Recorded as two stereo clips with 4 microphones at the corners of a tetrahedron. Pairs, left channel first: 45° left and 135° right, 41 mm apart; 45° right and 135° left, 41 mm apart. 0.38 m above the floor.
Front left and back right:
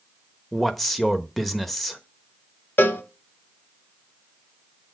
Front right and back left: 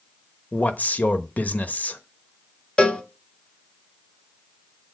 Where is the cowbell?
20° left, 1.0 m.